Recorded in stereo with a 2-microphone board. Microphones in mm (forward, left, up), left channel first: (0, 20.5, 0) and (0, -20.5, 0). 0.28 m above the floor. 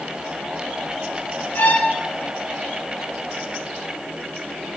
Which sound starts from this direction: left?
A violin, at 1.6 s.